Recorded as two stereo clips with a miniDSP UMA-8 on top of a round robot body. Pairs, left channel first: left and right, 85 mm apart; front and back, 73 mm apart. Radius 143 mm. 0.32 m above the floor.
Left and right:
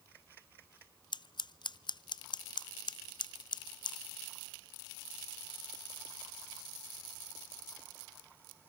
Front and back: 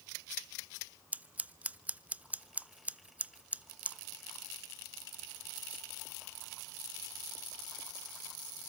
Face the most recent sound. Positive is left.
turn(degrees=110)